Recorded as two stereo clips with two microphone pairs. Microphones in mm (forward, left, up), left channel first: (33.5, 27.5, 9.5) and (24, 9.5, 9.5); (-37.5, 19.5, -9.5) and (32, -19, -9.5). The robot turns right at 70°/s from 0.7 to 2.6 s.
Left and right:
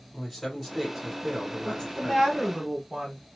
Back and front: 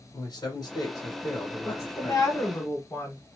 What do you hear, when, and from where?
0.1 s a man speaking: 140° left, 1.9 m; by 2.2 s 110° right, 1.9 m
1.6 s a woman speaking: 115° left, 1.5 m; by 3.2 s 175° right, 1.5 m